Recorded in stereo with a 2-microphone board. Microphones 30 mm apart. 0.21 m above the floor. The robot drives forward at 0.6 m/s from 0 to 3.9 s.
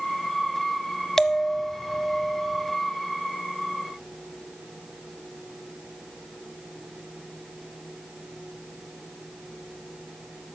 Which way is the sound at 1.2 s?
15° left (ahead or behind).